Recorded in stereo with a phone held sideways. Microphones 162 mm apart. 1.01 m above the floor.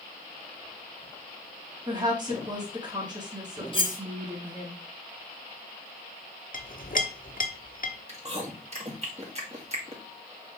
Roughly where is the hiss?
No hiss in this recording.